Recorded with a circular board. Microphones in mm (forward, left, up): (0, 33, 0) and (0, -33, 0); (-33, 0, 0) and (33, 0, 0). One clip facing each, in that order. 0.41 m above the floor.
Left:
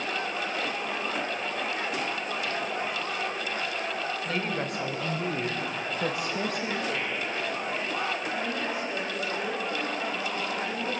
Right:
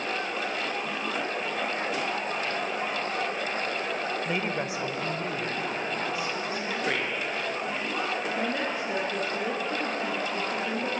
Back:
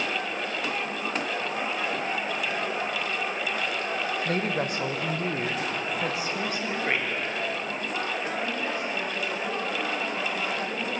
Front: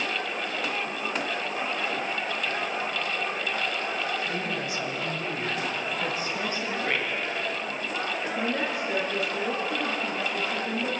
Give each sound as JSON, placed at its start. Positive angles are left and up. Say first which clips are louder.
{"t": 4.2, "sound": "a woman speaking", "louder": "right 1 dB, back 3 dB", "azimuth_deg": -155, "distance_m": 2.0}
{"t": 6.8, "sound": "a man speaking", "louder": "right 2 dB, back 1 dB", "azimuth_deg": -105, "distance_m": 6.0}
{"t": 8.4, "sound": "a woman speaking", "louder": "right 2 dB, front 1 dB", "azimuth_deg": -45, "distance_m": 6.0}